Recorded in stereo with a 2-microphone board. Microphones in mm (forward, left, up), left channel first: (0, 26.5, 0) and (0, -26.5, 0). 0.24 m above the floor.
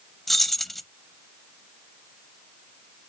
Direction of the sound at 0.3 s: Centre (ahead or behind).